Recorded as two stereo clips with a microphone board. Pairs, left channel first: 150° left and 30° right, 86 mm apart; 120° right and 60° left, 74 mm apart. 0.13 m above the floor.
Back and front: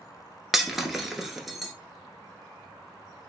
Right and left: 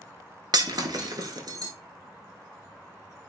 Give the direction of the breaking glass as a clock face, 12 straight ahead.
10 o'clock.